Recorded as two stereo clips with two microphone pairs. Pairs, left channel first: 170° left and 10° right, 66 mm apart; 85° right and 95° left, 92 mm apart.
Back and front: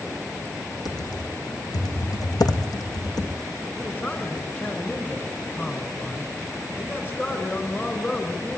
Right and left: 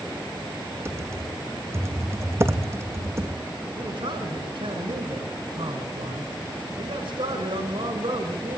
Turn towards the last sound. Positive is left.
turn(degrees=105)